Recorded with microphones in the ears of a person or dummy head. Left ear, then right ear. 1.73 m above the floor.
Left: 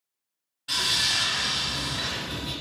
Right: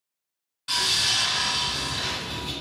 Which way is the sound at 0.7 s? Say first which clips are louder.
Right 1 dB; 20° right (ahead or behind).